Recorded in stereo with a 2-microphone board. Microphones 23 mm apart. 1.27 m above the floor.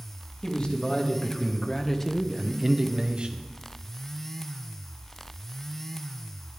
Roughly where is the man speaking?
Left.